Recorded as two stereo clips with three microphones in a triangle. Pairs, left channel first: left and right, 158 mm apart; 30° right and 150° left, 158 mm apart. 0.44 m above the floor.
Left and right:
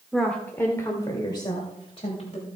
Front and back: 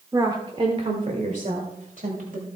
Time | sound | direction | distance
0.1 | a woman speaking | straight behind | 1.2 m